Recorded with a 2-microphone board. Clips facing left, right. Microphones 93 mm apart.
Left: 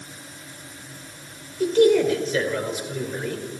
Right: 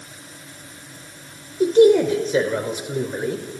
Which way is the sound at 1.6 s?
25° right (ahead or behind).